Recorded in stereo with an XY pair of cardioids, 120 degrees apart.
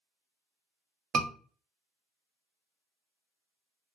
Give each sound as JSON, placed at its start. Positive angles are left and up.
{"t": 1.1, "sound": "a scream", "azimuth_deg": -55, "distance_m": 0.9}